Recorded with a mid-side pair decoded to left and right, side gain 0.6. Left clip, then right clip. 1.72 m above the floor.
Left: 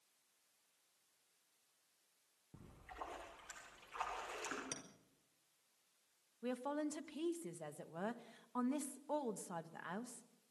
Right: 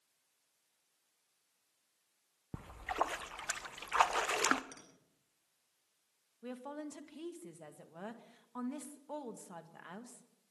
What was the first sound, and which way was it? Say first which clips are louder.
A splash: right 16 dB; 70° right.